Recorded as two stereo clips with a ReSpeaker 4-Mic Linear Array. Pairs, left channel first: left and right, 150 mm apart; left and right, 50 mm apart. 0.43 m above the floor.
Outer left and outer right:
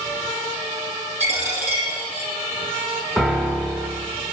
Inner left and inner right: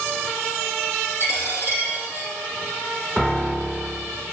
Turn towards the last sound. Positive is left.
turn(degrees=0)  # may be behind; listen again after turning